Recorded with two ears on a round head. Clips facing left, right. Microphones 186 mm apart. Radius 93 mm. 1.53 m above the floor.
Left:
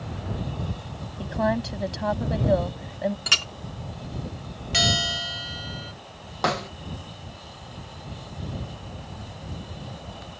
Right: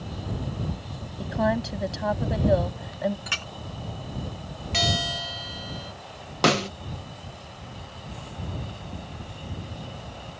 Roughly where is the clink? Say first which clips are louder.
Left 2 dB; left.